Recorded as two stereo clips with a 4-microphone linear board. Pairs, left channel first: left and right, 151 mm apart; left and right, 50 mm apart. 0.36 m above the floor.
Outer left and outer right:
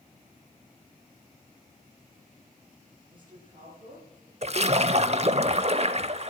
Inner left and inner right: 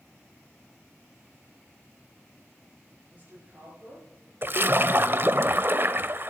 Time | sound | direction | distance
3.1 | a woman speaking | 35° right (ahead or behind) | 8 m
4.4 | a splash | 45° right (ahead or behind) | 0.7 m